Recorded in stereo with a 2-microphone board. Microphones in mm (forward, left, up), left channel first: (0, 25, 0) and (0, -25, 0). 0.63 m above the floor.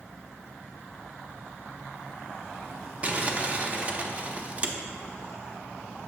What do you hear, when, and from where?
3.0 s crumpling: 25° right (ahead or behind), 0.6 m